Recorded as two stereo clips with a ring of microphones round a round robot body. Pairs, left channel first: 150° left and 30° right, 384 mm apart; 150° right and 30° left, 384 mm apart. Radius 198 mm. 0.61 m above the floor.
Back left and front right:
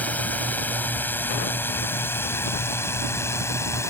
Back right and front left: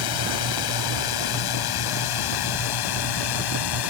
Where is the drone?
125° right.